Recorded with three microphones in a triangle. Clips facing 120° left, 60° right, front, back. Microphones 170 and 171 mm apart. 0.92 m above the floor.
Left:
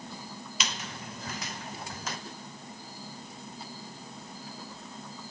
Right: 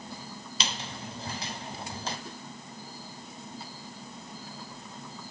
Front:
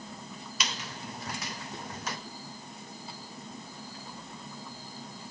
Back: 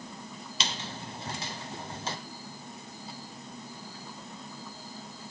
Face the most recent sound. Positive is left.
turn(degrees=-120)